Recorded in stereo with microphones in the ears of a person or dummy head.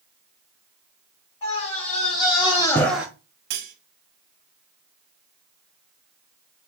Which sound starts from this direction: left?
A scream, at 1.4 s.